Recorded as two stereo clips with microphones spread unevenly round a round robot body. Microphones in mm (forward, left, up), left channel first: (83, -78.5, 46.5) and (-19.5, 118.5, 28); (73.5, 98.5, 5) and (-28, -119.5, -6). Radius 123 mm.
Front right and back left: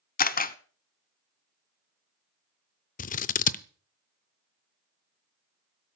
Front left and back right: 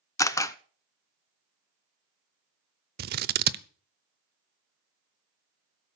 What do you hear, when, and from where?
0.2 s a camera shutter: 10° right, 0.8 m
3.0 s scissors: 100° right, 0.6 m